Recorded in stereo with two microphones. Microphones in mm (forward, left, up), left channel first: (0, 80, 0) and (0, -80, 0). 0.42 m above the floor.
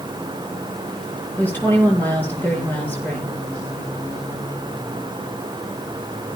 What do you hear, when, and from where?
1.4 s a woman speaking: 10° left (ahead or behind), 7 m